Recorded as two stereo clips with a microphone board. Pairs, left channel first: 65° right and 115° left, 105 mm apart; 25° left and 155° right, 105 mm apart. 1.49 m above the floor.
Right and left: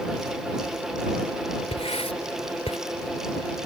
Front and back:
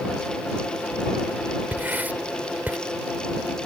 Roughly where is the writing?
Right.